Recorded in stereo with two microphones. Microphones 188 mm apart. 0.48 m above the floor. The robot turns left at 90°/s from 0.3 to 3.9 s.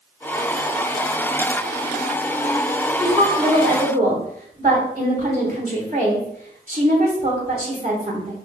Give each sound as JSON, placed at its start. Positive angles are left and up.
{"t": 3.0, "sound": "a woman speaking", "azimuth_deg": 0, "distance_m": 1.1}